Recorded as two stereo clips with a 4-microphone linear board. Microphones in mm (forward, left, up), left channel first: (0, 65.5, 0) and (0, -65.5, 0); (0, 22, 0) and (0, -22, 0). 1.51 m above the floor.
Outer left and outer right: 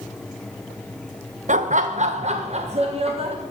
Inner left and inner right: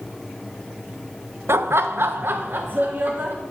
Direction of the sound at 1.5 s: 70° right (ahead or behind).